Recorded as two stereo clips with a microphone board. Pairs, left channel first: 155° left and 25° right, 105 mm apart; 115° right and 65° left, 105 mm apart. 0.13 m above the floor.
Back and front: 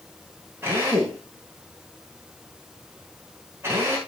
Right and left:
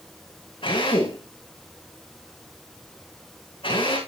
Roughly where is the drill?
Right.